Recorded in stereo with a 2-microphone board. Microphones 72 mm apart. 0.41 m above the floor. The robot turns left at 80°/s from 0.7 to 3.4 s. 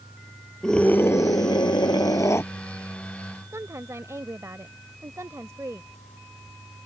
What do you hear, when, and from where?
0.6 s a scream: 175° left; by 2.5 s 35° left
3.5 s a woman speaking: 45° right (ahead or behind)